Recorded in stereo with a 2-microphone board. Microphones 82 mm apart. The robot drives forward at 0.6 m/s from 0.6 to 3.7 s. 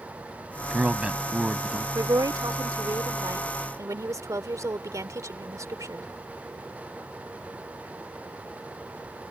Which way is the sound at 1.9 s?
55° right (ahead or behind).